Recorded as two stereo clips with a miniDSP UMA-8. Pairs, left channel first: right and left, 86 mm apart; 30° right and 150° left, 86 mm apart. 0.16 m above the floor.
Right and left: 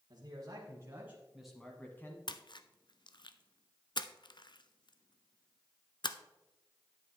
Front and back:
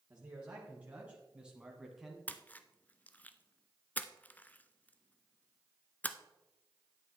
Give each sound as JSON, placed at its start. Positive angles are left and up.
{"t": 0.1, "sound": "a man speaking", "azimuth_deg": 85, "distance_m": 2.0}
{"t": 2.3, "sound": "a splash", "azimuth_deg": -100, "distance_m": 0.6}